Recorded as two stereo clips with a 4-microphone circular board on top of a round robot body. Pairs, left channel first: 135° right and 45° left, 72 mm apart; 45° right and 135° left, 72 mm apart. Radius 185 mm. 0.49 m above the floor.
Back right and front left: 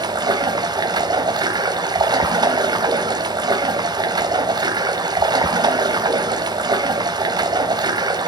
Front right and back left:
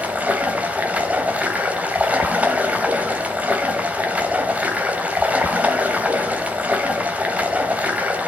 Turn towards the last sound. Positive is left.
turn(degrees=65)